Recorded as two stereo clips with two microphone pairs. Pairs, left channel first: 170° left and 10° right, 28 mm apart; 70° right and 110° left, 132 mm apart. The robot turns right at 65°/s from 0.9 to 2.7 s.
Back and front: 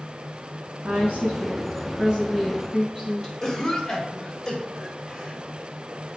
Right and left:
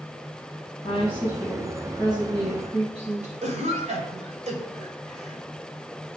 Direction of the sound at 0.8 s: 35° right.